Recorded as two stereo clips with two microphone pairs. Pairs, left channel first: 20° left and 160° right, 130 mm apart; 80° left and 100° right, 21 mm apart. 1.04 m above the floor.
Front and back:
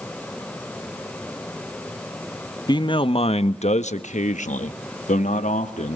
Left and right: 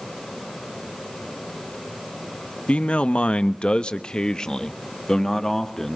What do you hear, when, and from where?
2.7 s a man speaking: 75° left, 0.9 m; by 6.0 s 5° left, 1.8 m